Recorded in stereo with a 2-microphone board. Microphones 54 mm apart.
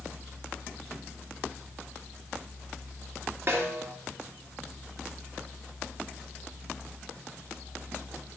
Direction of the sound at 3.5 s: 45° right (ahead or behind).